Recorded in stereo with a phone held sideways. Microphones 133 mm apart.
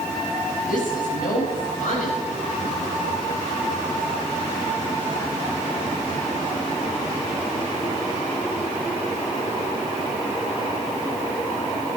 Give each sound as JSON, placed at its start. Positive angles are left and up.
{"t": 0.7, "sound": "a woman speaking", "side_deg": 80, "distance_m": 5.5}